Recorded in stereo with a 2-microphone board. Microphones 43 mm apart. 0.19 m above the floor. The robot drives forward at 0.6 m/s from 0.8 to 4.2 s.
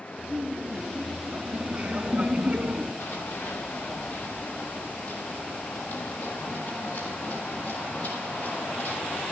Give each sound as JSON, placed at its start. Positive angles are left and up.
{"t": 0.2, "sound": "laughter", "side_deg": -25, "distance_m": 2.5}
{"t": 3.0, "sound": "running footsteps", "side_deg": 70, "distance_m": 3.0}